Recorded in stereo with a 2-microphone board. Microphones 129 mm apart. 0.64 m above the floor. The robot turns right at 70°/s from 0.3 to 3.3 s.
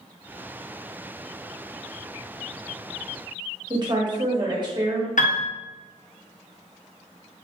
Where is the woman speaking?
35° right (ahead or behind), 1.3 m.